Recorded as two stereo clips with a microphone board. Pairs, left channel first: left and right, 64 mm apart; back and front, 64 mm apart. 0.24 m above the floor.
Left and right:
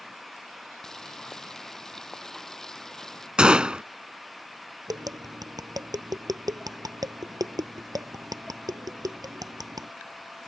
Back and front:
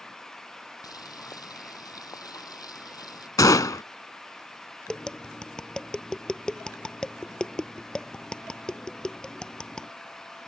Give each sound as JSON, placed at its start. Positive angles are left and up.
{"t": 0.8, "sound": "boiling", "azimuth_deg": 175}
{"t": 3.4, "sound": "a gunshot", "azimuth_deg": -165}
{"t": 4.9, "sound": "tapping", "azimuth_deg": -100}